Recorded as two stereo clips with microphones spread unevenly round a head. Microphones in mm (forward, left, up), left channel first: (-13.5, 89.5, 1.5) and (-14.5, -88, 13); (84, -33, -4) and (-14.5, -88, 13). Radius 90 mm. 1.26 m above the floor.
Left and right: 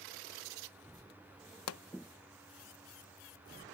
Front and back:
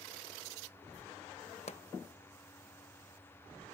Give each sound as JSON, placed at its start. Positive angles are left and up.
{"t": 1.7, "sound": "a pop", "azimuth_deg": 90}